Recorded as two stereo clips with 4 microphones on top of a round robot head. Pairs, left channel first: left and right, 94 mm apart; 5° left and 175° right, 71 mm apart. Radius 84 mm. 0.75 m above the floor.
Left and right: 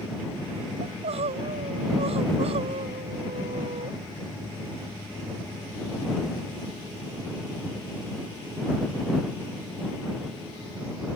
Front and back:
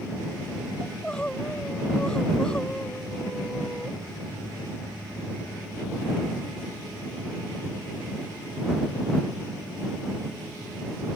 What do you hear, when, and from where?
0.8 s crying: 75° right